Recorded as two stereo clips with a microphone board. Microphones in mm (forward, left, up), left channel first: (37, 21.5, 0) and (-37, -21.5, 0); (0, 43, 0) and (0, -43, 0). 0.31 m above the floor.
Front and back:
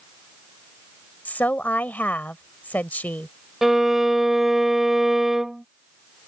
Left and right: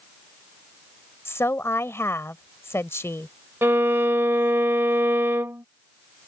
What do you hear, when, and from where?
1.2 s a woman speaking: 80° left
3.6 s a violin: 70° right